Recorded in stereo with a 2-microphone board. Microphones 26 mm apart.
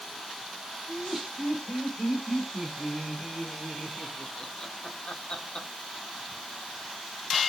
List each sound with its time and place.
0.9 s laughter: 10° right (ahead or behind), 4 m; by 5.7 s 45° left (ahead or behind), 1.6 m